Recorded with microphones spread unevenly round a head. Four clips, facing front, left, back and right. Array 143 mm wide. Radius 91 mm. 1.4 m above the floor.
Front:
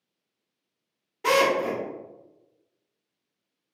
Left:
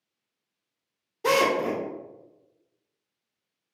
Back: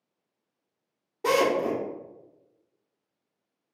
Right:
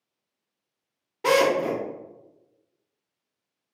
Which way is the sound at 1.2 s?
135° right.